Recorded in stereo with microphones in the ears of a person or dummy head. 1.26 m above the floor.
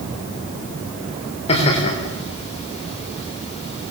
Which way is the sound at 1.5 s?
30° left (ahead or behind).